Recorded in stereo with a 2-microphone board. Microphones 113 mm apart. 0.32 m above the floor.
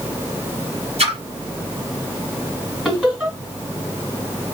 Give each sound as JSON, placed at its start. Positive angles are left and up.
{"t": 1.0, "sound": "a splash", "side_deg": -65, "distance_m": 1.2}
{"t": 2.9, "sound": "laughter", "side_deg": -10, "distance_m": 1.7}